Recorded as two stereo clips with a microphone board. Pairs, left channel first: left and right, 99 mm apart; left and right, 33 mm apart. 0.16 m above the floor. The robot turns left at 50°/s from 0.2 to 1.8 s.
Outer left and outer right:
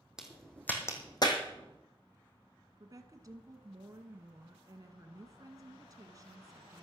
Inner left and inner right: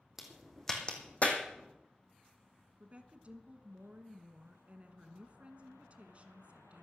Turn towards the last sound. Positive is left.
turn(degrees=-40)  # may be behind; listen again after turning